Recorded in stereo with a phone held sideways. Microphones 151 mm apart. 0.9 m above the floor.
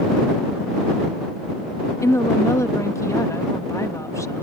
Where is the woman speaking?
20° left (ahead or behind).